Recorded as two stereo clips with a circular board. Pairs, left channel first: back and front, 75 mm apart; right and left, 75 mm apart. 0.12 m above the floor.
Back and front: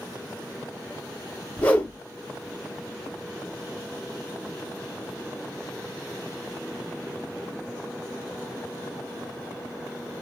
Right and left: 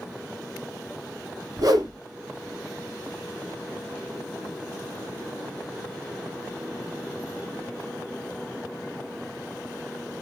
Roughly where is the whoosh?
Left.